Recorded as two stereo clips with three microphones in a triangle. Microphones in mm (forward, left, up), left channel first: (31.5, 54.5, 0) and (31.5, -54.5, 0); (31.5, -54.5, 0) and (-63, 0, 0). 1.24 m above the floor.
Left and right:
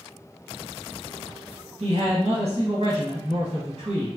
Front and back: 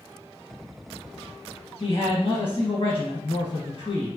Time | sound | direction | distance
1.8 | a man speaking | 65° right | 1.3 m